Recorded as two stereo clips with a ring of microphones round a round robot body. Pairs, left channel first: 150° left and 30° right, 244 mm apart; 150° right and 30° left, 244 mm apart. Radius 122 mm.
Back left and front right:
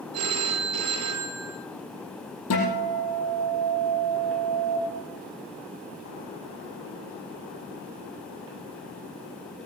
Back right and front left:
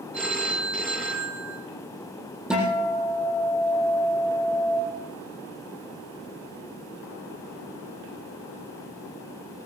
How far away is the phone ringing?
About 4 m.